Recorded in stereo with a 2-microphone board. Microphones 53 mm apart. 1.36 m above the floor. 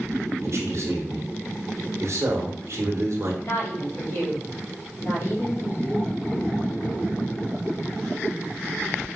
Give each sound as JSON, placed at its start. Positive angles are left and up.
{"t": 0.4, "sound": "a man speaking", "side_deg": -55, "distance_m": 1.3}
{"t": 3.4, "sound": "a woman speaking", "side_deg": 55, "distance_m": 1.7}